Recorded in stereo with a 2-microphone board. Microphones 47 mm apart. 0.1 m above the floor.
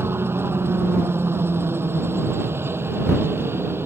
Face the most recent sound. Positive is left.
turn(degrees=-55)  # may be behind; listen again after turning